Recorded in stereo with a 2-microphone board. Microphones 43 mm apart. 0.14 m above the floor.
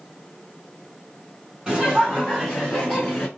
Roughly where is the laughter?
Centre.